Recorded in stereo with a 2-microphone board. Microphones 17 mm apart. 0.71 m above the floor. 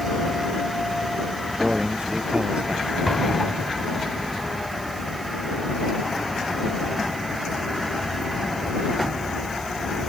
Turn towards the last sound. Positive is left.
turn(degrees=15)  # may be behind; listen again after turning